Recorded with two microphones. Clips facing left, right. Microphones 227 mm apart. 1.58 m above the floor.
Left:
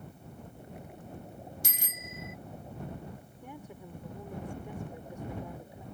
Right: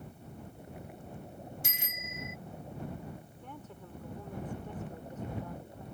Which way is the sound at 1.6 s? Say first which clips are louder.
Even; 40° left (ahead or behind).